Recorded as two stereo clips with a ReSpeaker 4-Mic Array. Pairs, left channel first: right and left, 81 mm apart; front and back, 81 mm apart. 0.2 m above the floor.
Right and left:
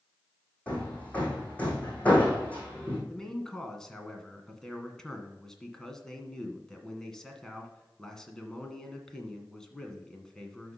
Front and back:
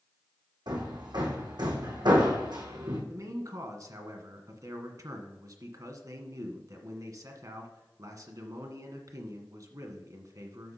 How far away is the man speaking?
About 1.5 m.